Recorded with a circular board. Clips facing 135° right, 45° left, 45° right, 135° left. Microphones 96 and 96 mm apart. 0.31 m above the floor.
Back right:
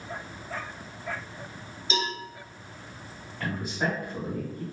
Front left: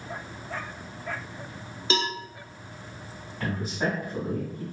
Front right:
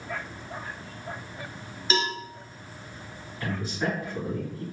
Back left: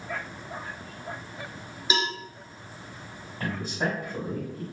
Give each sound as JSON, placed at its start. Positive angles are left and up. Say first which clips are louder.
{"t": 1.9, "sound": "a cowbell", "louder": "front left 2 dB, front right 1 dB", "azimuth_deg": 60, "distance_m": 0.6}
{"t": 3.4, "sound": "a man speaking", "louder": "front left 1 dB, even", "azimuth_deg": 130, "distance_m": 1.6}